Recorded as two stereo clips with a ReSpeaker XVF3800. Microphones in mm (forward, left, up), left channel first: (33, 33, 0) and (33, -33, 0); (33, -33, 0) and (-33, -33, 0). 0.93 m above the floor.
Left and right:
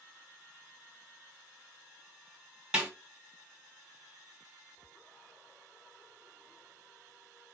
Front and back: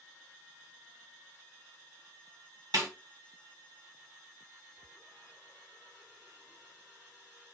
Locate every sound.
2.7 s a snare drum: 165° right, 1.4 m